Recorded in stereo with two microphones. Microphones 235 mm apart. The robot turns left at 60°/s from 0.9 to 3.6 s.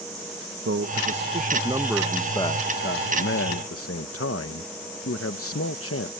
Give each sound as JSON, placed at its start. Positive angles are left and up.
{"t": 0.7, "sound": "a man speaking", "azimuth_deg": -110}